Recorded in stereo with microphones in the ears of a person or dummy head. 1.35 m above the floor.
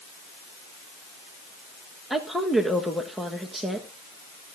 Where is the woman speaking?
Centre (ahead or behind), 1.3 m.